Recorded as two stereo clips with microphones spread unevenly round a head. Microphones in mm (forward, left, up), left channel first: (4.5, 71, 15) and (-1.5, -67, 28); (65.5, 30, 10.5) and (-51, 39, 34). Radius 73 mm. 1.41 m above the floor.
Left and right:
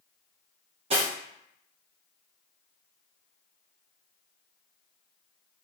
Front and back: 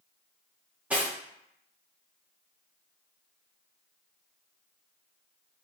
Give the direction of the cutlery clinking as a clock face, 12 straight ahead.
4 o'clock.